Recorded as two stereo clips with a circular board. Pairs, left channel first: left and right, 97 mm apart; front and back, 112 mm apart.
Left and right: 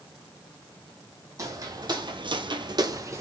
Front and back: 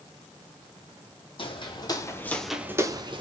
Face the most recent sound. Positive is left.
turn(degrees=-145)